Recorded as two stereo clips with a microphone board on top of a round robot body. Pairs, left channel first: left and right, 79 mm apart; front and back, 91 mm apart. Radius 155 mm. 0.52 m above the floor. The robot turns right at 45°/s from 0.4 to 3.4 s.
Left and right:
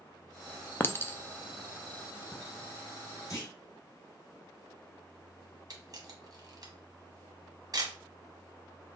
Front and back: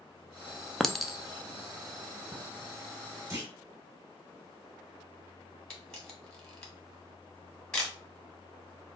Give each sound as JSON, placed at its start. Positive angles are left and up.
{"t": 0.8, "sound": "a clink", "azimuth_deg": 80, "distance_m": 0.6}
{"t": 3.3, "sound": "a clunk", "azimuth_deg": 125, "distance_m": 1.5}
{"t": 5.7, "sound": "a camera shutter", "azimuth_deg": -80, "distance_m": 1.5}